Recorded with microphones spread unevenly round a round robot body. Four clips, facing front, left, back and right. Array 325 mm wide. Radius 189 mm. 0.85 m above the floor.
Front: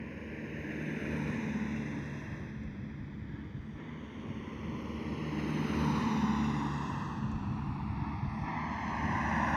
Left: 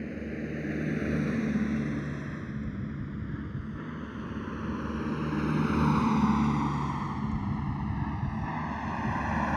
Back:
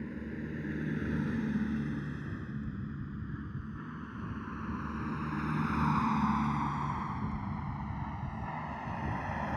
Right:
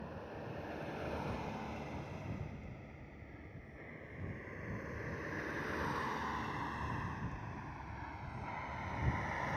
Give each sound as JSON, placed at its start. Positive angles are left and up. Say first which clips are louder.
{"t": 0.0, "sound": "a vehicle", "louder": "left 11 dB, back 3 dB", "azimuth_deg": 115}